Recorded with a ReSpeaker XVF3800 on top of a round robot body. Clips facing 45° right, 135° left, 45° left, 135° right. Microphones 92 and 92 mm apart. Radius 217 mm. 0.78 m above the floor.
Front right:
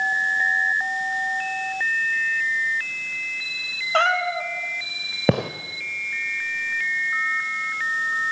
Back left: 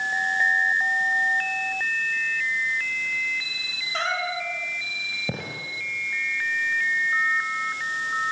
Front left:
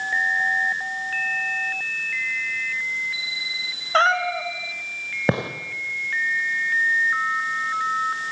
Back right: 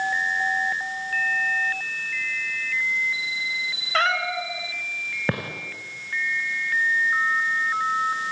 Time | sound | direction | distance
3.9 | a cat meowing | 15° right | 1.9 m
5.3 | a gunshot | 20° right | 0.6 m